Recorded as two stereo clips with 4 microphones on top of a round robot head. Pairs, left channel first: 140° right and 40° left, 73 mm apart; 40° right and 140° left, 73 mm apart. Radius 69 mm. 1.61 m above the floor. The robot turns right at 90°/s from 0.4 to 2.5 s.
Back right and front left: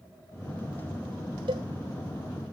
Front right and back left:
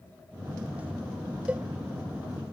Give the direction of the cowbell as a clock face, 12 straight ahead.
10 o'clock.